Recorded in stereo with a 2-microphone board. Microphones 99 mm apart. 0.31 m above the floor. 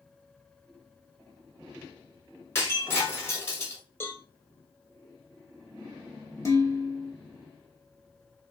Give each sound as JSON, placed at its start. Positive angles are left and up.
{"t": 2.5, "sound": "breaking glass", "side_deg": 25, "distance_m": 1.4}
{"t": 4.0, "sound": "a cowbell", "side_deg": 20, "distance_m": 0.6}
{"t": 6.5, "sound": "dishes clattering", "side_deg": 30, "distance_m": 0.7}